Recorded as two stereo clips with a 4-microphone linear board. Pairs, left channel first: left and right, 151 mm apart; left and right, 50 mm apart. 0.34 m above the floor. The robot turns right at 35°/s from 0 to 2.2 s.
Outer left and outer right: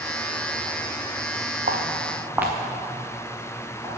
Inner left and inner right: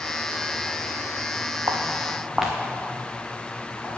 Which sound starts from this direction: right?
Footsteps, at 1.7 s.